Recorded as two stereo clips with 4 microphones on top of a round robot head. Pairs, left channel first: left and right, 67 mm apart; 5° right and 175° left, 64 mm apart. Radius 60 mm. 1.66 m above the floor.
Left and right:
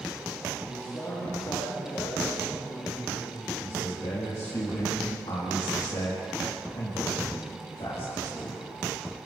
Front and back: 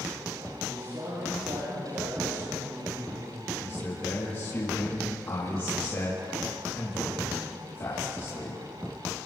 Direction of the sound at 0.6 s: 140° left.